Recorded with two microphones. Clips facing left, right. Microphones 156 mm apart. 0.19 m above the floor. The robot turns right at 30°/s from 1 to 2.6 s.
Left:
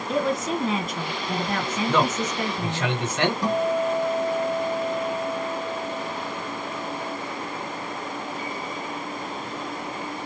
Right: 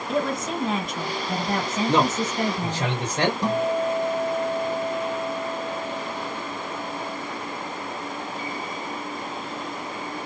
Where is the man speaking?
25° right (ahead or behind), 2.5 m; by 3.3 s 35° right (ahead or behind), 2.5 m.